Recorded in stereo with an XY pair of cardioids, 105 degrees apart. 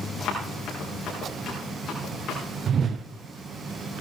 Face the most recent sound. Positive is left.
turn(degrees=-50)